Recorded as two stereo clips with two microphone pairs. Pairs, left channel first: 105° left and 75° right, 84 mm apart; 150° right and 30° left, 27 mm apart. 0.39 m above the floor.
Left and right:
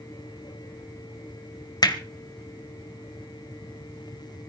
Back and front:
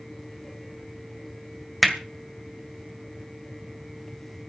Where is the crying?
I don't hear crying.